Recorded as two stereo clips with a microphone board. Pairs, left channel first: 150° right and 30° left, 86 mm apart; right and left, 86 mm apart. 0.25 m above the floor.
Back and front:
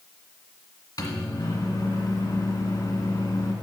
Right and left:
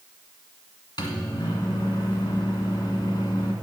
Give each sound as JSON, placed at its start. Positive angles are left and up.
{"t": 1.0, "sound": "a microwave", "azimuth_deg": -115, "distance_m": 2.0}